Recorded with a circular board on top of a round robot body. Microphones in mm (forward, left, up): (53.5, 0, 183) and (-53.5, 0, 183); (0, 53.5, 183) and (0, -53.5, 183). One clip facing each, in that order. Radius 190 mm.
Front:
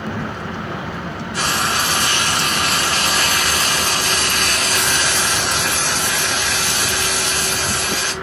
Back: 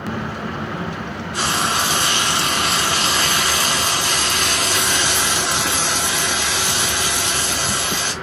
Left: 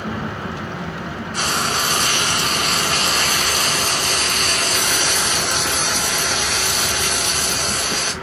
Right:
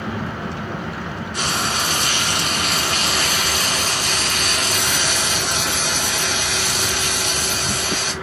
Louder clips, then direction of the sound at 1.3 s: Even, left 2 dB; 110° left.